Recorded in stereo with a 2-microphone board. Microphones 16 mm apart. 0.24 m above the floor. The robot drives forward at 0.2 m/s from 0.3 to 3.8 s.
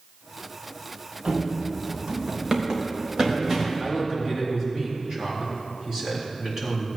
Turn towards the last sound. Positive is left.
turn(degrees=-30)  # may be behind; listen again after turning